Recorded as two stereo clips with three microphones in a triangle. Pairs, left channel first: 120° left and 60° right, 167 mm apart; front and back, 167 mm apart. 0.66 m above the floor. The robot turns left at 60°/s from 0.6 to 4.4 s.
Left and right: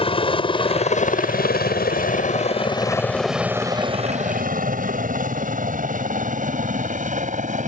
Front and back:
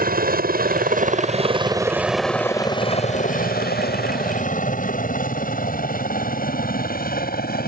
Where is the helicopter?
175° left; by 7.7 s 20° right.